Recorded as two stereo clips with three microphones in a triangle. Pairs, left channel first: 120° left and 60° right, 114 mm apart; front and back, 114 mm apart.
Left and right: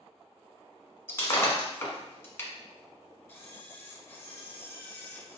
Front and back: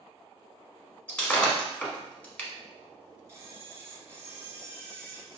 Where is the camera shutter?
160° left, 1.0 m.